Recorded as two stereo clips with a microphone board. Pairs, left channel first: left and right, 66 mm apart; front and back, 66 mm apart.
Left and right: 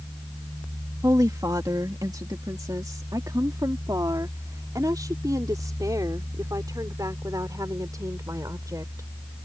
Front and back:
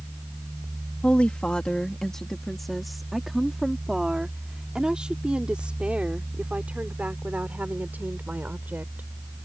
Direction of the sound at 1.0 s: 70° right.